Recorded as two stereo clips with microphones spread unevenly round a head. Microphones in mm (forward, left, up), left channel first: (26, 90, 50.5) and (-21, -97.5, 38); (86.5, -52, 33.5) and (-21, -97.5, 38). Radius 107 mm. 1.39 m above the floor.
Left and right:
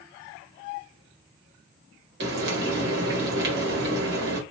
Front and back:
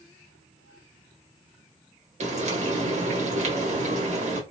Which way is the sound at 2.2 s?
140° right.